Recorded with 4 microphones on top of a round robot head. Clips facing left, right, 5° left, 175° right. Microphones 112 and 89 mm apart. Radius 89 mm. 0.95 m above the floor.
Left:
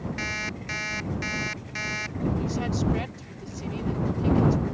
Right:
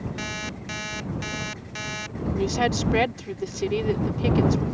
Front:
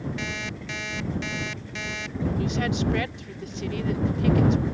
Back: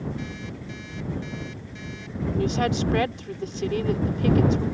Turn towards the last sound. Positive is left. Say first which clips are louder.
# right 4 dB, back 5 dB
turn(degrees=-115)